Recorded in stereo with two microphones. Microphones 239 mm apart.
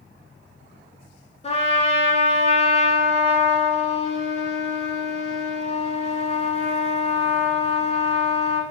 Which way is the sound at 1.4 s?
25° left (ahead or behind).